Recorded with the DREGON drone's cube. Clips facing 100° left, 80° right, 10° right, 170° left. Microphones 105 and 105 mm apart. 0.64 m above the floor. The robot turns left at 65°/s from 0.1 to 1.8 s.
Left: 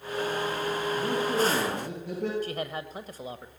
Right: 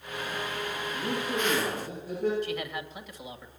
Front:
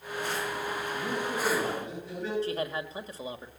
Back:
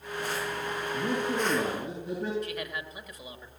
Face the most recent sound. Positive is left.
turn(degrees=50)